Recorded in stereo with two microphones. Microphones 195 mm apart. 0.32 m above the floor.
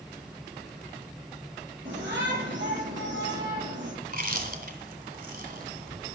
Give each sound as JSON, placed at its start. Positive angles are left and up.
{"t": 1.9, "sound": "a shout", "side_deg": -70, "distance_m": 6.0}
{"t": 4.0, "sound": "chewing", "side_deg": -50, "distance_m": 2.0}